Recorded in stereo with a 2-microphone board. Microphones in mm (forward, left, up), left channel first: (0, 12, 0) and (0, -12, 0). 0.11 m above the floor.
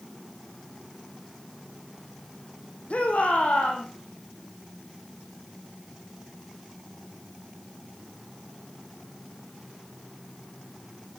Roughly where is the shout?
Left.